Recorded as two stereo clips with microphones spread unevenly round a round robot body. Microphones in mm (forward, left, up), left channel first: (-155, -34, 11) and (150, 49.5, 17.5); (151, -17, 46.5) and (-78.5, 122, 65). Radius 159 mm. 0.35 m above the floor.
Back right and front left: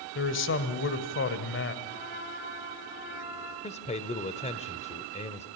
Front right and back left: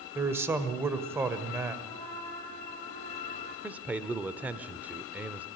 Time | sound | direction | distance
0.1 | a man speaking | 130° right | 1.6 m
1.9 | a trumpet | 105° right | 4.5 m
3.6 | a man speaking | 125° right | 1.0 m